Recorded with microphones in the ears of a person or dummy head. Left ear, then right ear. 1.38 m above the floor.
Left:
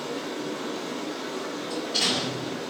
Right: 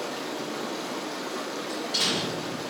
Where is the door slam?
55° right (ahead or behind), 2.5 m.